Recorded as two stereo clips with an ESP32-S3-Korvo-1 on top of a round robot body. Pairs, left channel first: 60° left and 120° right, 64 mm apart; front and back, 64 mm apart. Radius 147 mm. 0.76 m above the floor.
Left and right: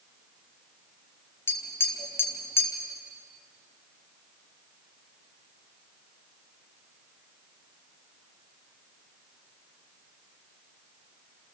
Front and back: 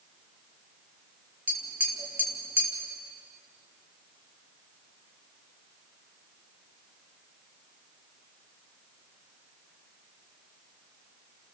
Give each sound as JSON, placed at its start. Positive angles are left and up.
{"t": 1.5, "sound": "tapping", "azimuth_deg": 115, "distance_m": 2.5}